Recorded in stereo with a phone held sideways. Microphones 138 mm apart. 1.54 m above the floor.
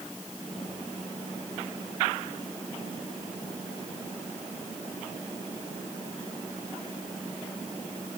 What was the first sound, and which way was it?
Only background noise.